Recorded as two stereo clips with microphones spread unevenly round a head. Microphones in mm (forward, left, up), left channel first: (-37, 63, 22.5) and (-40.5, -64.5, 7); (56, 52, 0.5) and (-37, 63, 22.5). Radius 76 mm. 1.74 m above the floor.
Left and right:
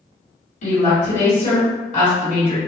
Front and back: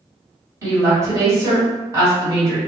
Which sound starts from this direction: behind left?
A woman speaking, at 0.6 s.